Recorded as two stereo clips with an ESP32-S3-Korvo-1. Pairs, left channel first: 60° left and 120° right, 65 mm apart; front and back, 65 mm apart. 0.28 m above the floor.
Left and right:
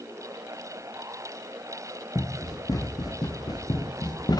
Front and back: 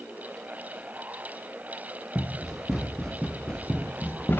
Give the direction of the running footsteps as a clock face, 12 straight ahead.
9 o'clock.